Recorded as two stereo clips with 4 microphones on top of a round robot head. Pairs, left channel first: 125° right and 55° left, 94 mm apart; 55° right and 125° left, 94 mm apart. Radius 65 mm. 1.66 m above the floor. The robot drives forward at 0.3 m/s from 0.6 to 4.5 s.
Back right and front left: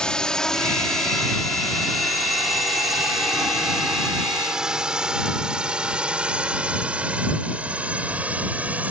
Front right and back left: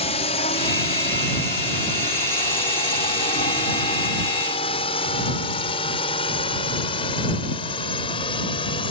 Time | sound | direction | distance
0.0 | a drone | 40° right | ?